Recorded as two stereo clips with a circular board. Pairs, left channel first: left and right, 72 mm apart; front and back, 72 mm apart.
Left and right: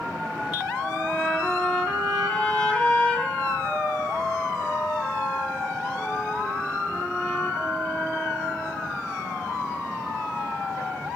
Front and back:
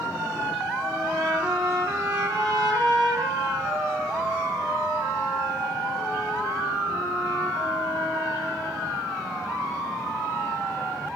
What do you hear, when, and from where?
0.8 s a trumpet: 165° left, 3.5 m